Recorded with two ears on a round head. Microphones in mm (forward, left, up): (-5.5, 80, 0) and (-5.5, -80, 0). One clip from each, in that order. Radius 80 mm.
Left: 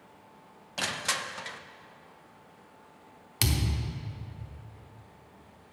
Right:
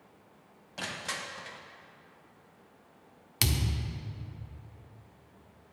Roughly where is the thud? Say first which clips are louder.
Left 1 dB; centre.